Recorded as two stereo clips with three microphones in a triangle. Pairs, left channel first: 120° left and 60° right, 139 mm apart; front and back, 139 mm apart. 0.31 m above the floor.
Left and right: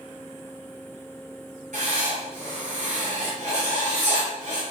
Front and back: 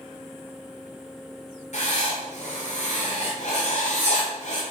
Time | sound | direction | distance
1.7 | writing | 30° right | 6.5 m